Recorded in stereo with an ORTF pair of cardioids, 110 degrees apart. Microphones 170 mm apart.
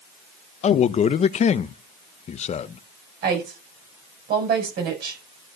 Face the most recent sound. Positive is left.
turn(degrees=-65)